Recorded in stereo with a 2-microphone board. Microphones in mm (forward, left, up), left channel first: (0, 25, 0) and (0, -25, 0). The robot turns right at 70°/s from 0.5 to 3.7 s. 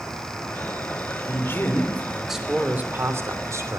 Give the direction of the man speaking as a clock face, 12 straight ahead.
8 o'clock.